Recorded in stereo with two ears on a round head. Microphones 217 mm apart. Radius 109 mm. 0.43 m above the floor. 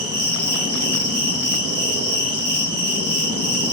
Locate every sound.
0.0 s an insect: 65° right (ahead or behind), 3.5 m